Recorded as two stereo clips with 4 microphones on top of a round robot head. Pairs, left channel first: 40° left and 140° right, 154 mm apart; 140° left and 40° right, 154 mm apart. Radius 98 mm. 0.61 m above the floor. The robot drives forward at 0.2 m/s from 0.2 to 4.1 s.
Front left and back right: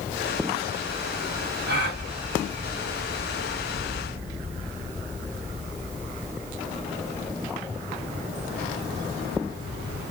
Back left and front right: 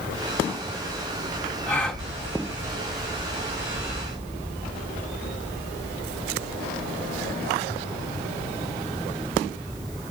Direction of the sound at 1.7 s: 130° right.